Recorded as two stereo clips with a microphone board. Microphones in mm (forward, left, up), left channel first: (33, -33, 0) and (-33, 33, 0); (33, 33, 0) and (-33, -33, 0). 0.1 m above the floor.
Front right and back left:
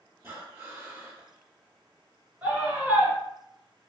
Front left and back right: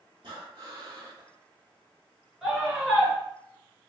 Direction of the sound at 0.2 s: 160° right.